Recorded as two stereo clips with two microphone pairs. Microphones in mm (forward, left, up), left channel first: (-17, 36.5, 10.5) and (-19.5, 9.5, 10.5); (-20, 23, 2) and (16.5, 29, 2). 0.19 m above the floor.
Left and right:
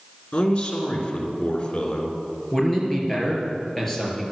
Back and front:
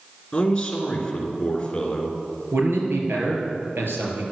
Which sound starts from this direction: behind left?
A man speaking, at 0.3 s.